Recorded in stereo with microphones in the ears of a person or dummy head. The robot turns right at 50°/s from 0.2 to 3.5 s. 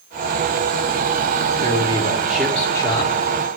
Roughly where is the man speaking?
Ahead right.